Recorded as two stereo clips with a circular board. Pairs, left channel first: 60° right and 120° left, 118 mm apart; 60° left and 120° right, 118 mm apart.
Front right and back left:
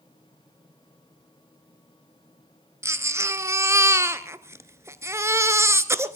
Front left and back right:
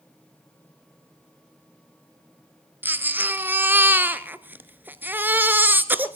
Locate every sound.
2.8 s a baby crying: 175° left, 0.8 m